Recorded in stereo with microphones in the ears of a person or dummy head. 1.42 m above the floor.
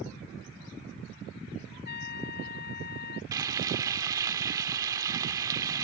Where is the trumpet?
50° left (ahead or behind).